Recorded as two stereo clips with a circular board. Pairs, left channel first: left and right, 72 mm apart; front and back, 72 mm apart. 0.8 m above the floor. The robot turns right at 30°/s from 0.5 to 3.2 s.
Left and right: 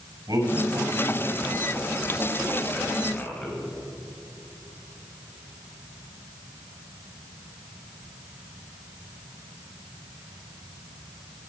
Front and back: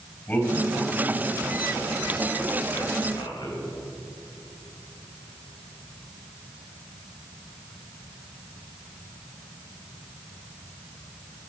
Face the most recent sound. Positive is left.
turn(degrees=15)